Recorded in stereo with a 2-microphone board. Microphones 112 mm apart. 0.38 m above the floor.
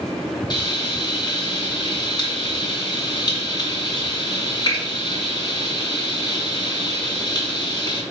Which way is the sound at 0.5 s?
40° left (ahead or behind).